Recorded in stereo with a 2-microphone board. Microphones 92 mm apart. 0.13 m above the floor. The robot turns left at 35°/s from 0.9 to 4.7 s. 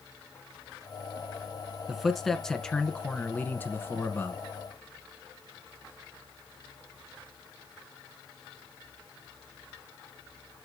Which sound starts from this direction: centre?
A man speaking, at 1.9 s.